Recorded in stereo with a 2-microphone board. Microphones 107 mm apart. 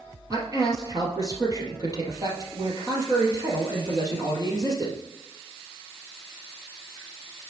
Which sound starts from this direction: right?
A man speaking, at 0.3 s.